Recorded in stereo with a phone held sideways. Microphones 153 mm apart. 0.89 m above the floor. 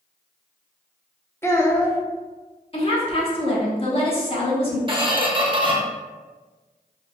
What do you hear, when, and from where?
1.4 s a child speaking: 15° left (ahead or behind), 0.6 m
2.7 s a woman speaking: 40° left (ahead or behind), 0.8 m
4.9 s a squeak: 30° right (ahead or behind), 0.6 m